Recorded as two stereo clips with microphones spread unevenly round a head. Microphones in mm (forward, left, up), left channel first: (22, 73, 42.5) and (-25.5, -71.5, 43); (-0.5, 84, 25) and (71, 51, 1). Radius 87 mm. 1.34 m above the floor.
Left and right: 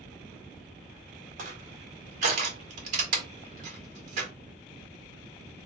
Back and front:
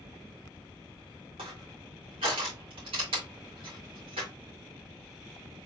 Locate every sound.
1.4 s crushing: 65° right, 1.9 m